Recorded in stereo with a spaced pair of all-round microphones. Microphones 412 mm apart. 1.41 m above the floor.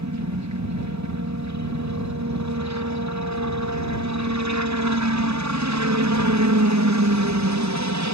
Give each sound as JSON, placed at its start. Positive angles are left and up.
{"t": 0.0, "sound": "a helicopter", "side_deg": -40}